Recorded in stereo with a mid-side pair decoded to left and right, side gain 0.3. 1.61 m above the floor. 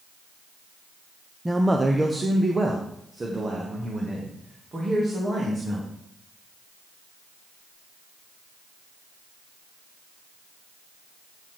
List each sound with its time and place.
1.4 s a man speaking: 15° right, 0.8 m; by 5.9 s 45° right, 3 m